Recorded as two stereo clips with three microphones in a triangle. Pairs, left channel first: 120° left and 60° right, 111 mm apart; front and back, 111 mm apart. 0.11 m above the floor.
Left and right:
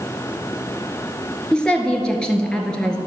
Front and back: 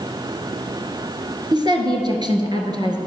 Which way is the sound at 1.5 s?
160° right.